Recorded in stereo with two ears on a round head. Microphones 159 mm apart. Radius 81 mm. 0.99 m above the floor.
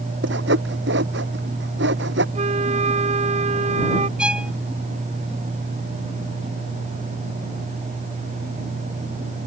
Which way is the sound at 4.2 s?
5° right (ahead or behind).